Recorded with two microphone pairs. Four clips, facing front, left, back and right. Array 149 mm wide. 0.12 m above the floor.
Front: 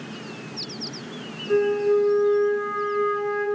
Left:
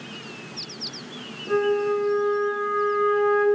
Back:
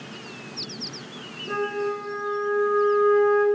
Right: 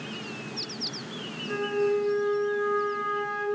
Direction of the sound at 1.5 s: 115° left.